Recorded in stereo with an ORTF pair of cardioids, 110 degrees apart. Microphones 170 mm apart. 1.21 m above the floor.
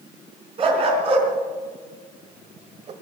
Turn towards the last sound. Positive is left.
turn(degrees=-45)